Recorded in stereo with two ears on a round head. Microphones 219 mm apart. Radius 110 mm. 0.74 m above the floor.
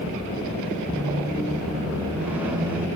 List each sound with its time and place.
0.9 s a squeak: 5° right (ahead or behind), 1.3 m